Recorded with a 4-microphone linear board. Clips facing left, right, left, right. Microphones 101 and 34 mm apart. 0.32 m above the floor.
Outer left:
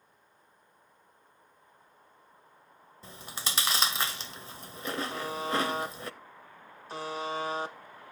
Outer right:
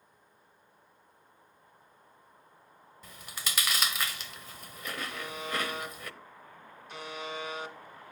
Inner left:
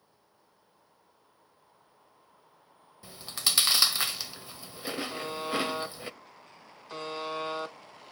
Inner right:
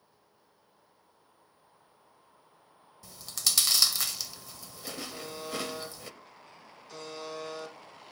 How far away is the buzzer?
About 0.9 m.